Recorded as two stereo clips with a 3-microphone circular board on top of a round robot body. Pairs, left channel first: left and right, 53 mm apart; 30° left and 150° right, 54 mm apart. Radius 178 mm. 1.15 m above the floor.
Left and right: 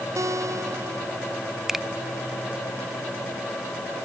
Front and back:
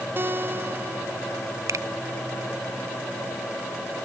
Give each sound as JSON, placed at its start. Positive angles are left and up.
{"t": 0.2, "sound": "a guitar", "azimuth_deg": -105}
{"t": 1.7, "sound": "a finger snap", "azimuth_deg": -175}